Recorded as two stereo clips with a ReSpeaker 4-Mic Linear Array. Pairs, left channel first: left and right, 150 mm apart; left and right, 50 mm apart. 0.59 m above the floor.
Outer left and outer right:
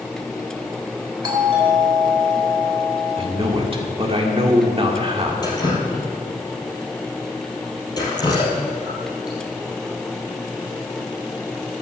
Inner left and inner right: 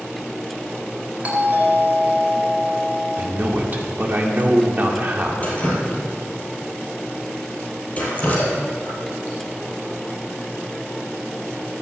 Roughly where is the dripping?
Left.